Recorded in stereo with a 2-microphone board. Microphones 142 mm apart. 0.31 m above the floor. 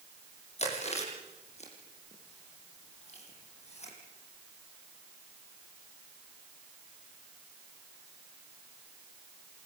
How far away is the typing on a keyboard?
I don't hear typing on a keyboard.